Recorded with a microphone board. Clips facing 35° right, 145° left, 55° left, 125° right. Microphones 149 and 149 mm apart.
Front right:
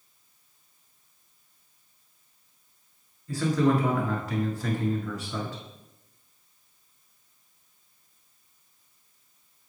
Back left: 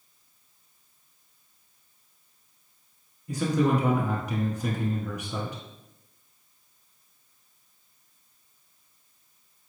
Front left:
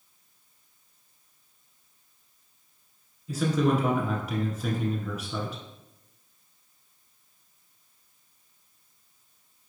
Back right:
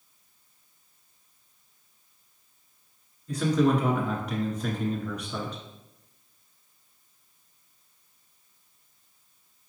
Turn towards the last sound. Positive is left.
turn(degrees=130)